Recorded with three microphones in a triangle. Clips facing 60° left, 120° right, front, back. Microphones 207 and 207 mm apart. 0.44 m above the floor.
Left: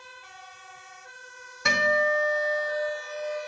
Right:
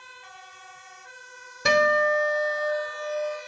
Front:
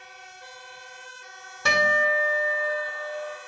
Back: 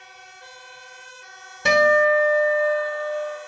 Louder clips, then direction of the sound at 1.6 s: Right 4 dB, back 8 dB; 125° right.